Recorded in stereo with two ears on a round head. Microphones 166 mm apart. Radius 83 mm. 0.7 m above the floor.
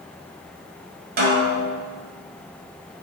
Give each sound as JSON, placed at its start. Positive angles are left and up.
{"t": 1.2, "sound": "a snare drum", "side_deg": -50, "distance_m": 1.9}